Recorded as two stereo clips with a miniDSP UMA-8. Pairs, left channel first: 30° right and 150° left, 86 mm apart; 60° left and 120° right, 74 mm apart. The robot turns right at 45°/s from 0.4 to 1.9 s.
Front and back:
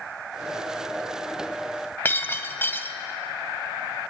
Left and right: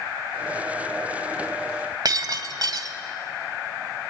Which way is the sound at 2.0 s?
95° right.